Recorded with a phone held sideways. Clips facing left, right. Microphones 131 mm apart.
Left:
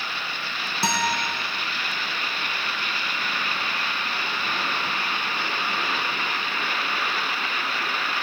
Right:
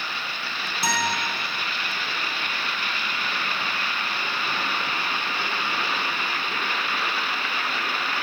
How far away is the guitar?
About 1.5 m.